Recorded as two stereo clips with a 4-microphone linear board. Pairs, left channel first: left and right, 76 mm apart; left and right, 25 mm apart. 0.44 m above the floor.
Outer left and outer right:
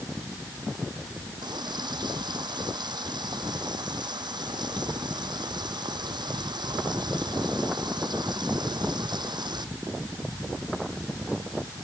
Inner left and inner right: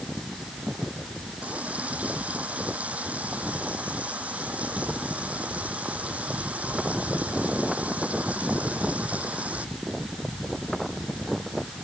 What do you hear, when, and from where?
1.4 s a running tap: 80° right